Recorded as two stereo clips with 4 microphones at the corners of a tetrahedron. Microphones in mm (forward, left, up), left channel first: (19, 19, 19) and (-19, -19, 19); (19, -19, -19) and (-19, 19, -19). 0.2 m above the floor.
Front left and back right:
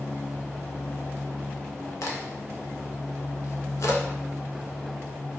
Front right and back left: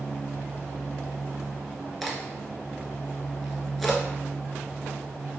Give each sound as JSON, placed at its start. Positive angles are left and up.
{"t": 2.0, "sound": "a crack", "azimuth_deg": 45, "distance_m": 0.6}